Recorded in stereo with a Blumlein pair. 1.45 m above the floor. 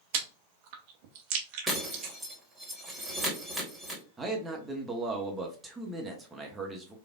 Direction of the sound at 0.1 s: 50° right.